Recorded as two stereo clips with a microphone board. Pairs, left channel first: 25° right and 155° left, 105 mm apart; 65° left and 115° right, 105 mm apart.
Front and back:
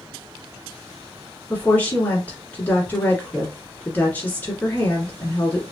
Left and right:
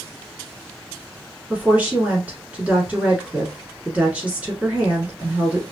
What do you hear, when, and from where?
1.5 s a woman speaking: 60° right, 1.6 m